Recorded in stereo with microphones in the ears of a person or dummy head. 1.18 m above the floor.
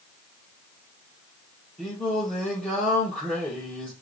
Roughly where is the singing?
Centre.